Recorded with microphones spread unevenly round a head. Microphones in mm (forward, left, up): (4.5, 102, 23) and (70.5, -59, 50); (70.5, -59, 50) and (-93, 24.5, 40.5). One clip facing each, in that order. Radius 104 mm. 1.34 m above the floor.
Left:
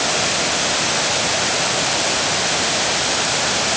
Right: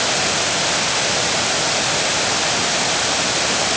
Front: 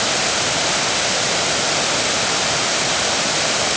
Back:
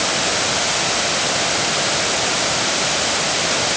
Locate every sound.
Only background noise.